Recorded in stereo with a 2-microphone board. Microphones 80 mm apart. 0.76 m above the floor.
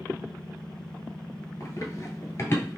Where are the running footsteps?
40° left (ahead or behind), 0.9 m; by 2.8 s 30° left (ahead or behind), 1.0 m.